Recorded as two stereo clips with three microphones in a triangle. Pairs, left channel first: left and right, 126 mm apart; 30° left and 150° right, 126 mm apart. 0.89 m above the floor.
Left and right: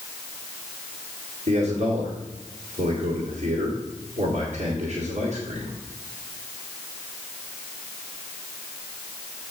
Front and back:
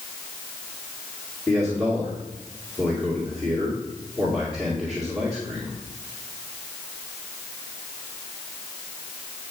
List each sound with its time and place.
1.5 s a man speaking: 60° right, 2.5 m